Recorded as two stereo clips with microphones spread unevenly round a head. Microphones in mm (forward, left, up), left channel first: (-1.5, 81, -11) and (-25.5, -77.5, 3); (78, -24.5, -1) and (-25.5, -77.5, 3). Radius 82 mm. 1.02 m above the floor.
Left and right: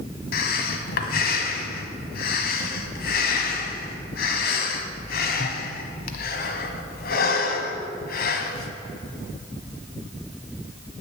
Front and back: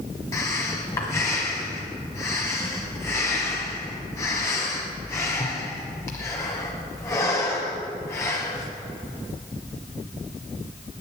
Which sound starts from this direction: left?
Breathing, at 0.3 s.